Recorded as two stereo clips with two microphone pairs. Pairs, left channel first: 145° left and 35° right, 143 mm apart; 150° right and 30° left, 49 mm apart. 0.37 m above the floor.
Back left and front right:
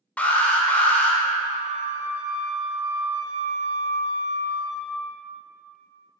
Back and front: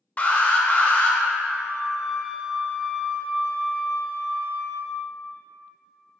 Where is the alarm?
150° right, 0.8 m.